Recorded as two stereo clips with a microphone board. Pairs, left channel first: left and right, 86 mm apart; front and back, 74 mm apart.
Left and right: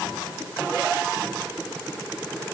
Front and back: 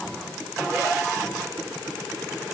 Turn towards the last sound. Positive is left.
No sound to turn to.